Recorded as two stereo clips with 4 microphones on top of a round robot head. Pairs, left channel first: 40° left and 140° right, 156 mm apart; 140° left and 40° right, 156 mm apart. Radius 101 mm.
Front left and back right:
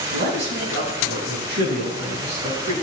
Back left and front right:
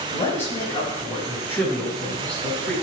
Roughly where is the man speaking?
Behind right.